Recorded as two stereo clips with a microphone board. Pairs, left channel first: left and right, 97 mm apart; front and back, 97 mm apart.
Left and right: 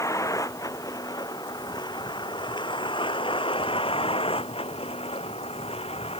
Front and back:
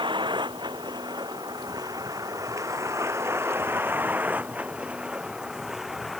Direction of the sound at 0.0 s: 145° left.